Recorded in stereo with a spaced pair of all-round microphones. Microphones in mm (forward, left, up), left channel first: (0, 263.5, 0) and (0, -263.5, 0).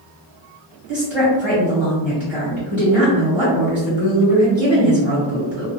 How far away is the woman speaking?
About 1.0 m.